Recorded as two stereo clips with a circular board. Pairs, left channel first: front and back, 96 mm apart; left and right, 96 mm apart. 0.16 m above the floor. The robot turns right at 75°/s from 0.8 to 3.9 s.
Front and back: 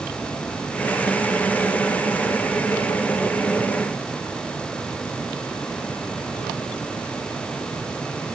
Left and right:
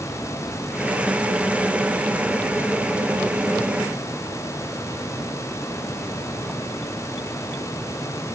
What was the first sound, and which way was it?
Only background noise.